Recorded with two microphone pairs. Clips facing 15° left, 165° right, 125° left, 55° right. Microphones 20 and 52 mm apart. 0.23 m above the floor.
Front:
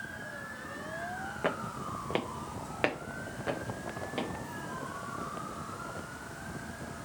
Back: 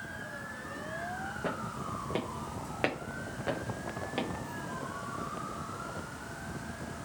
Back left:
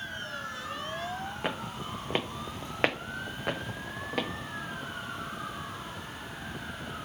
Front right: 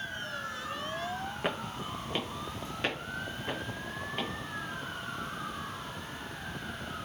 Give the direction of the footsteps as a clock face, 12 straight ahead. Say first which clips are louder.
Front 5 dB, front right 1 dB; 11 o'clock.